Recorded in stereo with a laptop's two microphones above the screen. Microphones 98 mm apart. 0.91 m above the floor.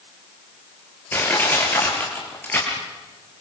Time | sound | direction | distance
1.1 | crushing | 20° left (ahead or behind) | 5 m